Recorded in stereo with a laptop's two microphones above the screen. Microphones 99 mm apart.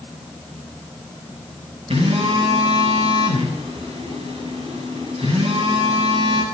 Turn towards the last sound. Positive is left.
turn(degrees=-85)